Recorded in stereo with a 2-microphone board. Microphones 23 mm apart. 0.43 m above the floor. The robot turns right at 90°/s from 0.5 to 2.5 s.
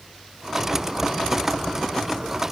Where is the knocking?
I don't hear knocking.